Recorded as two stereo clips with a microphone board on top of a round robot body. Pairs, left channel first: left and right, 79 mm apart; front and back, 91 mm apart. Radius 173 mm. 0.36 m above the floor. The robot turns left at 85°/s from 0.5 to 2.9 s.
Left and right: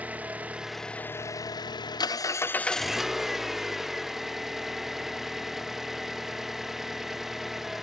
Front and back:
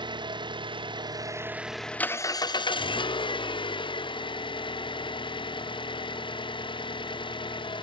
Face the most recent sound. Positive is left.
turn(degrees=-5)